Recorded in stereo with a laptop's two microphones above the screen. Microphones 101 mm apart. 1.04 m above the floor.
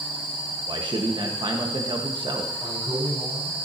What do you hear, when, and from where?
0.7 s a man speaking: 50° right (ahead or behind), 1.4 m
2.6 s a man speaking: 75° right (ahead or behind), 5.5 m